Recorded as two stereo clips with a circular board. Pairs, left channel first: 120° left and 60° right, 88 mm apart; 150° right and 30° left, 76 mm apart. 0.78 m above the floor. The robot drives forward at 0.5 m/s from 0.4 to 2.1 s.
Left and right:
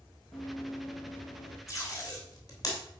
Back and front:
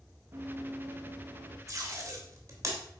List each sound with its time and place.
0.3 s running footsteps: 70° left, 3.5 m; by 1.6 s 75° left, 4 m
1.7 s tape being pulled: 70° left, 2.5 m; by 2.8 s 75° left, 2.5 m